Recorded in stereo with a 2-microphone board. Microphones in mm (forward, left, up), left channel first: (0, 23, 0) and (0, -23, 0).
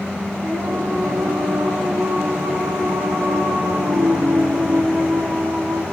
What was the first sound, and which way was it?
Singing, 85° right.